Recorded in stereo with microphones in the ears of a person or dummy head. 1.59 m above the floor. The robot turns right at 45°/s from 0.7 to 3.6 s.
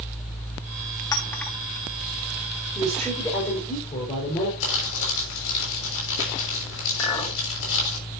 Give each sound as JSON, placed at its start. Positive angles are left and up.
{"t": 1.1, "sound": "a clink", "side_deg": 20, "distance_m": 0.8}
{"t": 2.8, "sound": "a woman speaking", "azimuth_deg": -5, "distance_m": 5.0}
{"t": 4.6, "sound": "crumpling", "side_deg": 75, "distance_m": 6.5}
{"t": 7.0, "sound": "a clink", "side_deg": 15, "distance_m": 4.0}